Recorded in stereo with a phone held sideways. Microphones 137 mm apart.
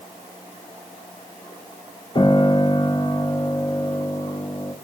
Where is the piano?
35° left (ahead or behind), 1.0 m.